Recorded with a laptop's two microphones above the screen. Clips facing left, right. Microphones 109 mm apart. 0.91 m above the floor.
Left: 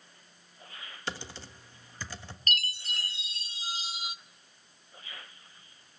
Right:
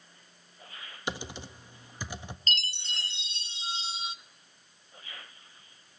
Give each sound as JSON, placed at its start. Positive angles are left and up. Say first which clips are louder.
{"t": 1.1, "sound": "typing on a keyboard", "louder": "right 3 dB", "side_deg": -15, "distance_m": 1.1}
{"t": 2.5, "sound": "a chime", "louder": "left 2 dB", "side_deg": -30, "distance_m": 0.5}